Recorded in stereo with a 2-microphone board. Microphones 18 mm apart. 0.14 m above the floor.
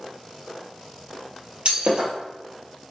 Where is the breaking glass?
65° right (ahead or behind), 1.4 m.